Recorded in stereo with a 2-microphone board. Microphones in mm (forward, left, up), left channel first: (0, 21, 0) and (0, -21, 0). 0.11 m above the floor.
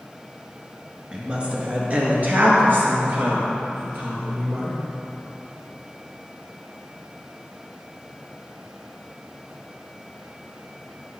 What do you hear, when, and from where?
1.1 s a woman speaking: 25° right (ahead or behind), 1.2 m; by 4.8 s 65° right (ahead or behind), 2.5 m